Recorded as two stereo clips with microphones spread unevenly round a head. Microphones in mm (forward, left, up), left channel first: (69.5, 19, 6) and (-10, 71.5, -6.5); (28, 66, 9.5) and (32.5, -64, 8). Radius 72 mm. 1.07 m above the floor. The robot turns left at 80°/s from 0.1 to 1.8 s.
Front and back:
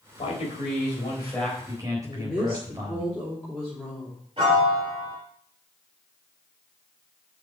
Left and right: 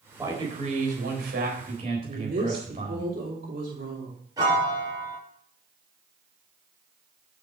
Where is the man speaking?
15° right, 4 m; by 3.0 s 145° right, 4 m.